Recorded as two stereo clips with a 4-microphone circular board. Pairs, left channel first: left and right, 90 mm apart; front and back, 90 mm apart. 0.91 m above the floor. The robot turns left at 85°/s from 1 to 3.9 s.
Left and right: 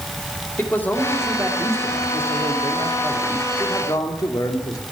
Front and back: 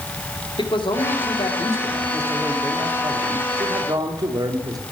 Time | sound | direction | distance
0.6 | a man speaking | 20° left | 2 m